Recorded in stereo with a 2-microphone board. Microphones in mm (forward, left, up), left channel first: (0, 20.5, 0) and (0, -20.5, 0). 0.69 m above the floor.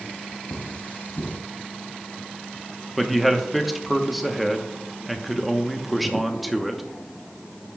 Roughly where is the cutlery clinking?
Left.